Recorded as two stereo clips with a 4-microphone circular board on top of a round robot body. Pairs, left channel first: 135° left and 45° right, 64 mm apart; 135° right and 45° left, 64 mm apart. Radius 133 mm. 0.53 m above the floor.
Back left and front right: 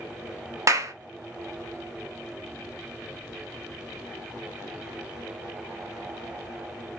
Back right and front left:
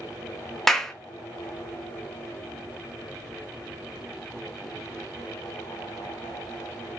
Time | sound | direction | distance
0.7 | a clap | 55° right | 0.7 m